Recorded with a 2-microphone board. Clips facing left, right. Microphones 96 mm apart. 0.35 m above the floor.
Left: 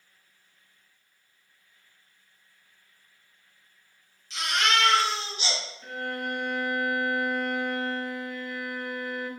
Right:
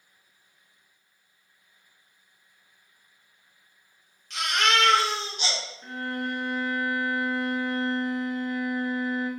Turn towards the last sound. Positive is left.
turn(degrees=-30)  # may be behind; listen again after turning